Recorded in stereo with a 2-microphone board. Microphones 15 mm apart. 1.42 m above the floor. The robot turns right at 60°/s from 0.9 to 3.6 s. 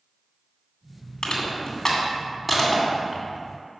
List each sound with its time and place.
1.2 s crushing: 50° left (ahead or behind), 2.5 m; by 3.2 s 45° right (ahead or behind), 2.5 m